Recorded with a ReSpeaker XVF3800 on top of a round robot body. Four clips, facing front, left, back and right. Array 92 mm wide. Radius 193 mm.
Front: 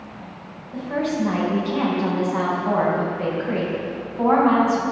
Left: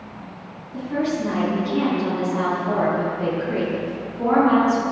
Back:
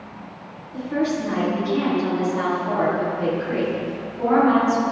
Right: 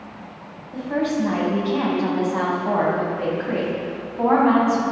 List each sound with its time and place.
0.7 s a woman speaking: 55° right, 4.5 m